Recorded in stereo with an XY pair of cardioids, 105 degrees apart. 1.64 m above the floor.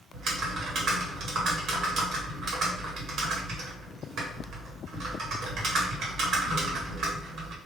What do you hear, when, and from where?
0.1 s typing on a keyboard: 70° right, 1.0 m